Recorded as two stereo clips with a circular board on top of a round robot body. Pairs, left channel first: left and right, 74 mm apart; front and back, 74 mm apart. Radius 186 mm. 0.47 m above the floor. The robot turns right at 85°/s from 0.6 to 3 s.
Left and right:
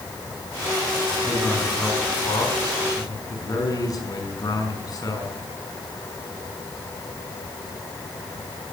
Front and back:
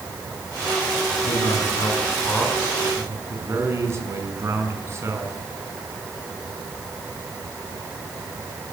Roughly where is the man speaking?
Ahead.